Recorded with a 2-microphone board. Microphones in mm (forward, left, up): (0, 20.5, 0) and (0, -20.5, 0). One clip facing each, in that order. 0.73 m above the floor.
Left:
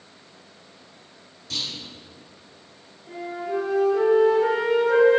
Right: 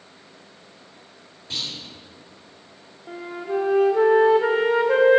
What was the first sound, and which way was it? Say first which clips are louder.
A clunk: even; 25° right (ahead or behind).